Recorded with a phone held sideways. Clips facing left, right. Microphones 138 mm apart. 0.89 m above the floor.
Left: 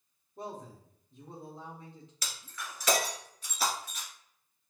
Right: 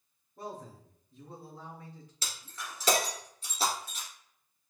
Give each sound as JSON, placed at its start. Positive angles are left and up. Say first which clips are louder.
{"t": 0.4, "sound": "a man speaking", "louder": "even", "side_deg": 25, "distance_m": 1.7}
{"t": 2.2, "sound": "breaking glass", "louder": "even", "side_deg": -30, "distance_m": 1.9}